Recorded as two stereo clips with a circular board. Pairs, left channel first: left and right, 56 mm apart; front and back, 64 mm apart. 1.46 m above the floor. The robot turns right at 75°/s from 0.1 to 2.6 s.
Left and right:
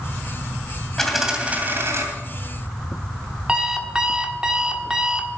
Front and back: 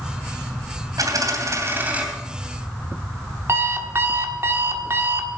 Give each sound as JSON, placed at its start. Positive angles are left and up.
{"t": 1.0, "sound": "a dropped coin", "azimuth_deg": 175, "distance_m": 2.5}
{"t": 3.5, "sound": "an alarm clock", "azimuth_deg": -155, "distance_m": 1.3}